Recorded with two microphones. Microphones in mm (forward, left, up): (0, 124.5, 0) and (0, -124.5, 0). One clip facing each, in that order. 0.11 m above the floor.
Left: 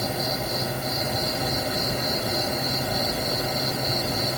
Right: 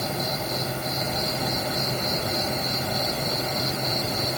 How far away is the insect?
About 7.5 m.